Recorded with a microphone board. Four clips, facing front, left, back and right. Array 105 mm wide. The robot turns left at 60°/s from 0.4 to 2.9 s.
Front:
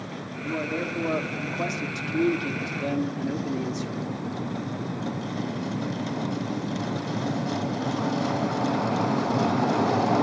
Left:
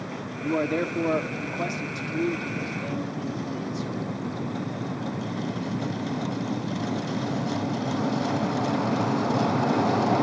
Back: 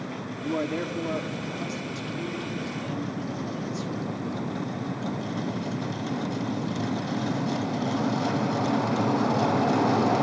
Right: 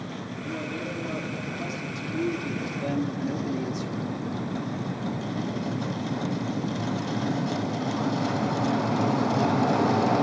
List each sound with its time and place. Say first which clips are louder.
0.4 s a man speaking: left 9 dB, back 1 dB; 115° left, 1.5 m; by 3.9 s 35° right, 1.5 m